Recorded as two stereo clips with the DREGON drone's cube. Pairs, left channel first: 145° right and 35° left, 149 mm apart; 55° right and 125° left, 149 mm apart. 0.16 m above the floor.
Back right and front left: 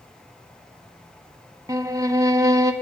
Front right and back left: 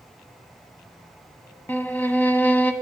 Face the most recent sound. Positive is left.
turn(degrees=5)